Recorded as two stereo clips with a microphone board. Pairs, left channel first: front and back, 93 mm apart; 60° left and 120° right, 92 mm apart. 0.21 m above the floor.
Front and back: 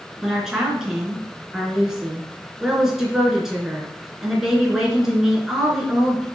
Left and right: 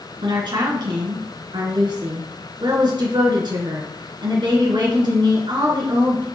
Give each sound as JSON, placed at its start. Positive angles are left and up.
{"t": 0.2, "sound": "a woman speaking", "azimuth_deg": -95, "distance_m": 3.0}